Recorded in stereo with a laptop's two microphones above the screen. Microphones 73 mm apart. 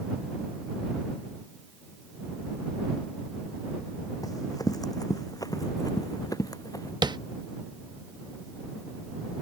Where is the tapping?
85° right.